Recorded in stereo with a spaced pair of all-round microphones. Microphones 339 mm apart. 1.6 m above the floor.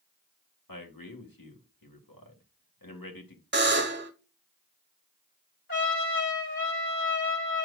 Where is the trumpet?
35° left (ahead or behind), 5 m.